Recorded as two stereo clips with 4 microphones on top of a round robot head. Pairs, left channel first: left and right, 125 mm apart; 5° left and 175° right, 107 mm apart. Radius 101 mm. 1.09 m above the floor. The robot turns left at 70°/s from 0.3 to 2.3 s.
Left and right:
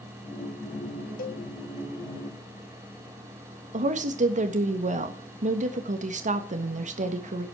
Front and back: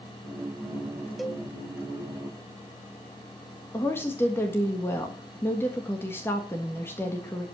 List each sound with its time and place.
1.2 s a cowbell: 100° left, 1.6 m; by 1.4 s 80° left, 1.6 m
3.7 s a woman speaking: 65° right, 1.5 m